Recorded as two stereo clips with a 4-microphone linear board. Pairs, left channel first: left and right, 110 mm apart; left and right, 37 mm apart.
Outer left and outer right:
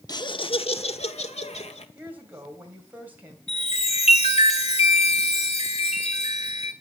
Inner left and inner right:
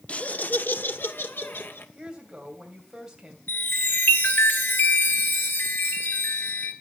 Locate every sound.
0.1 s laughter: 35° left (ahead or behind), 0.8 m; by 1.9 s 75° left (ahead or behind), 2 m
1.9 s a woman speaking: 15° right (ahead or behind), 2.5 m
3.5 s a chime: 65° left (ahead or behind), 3 m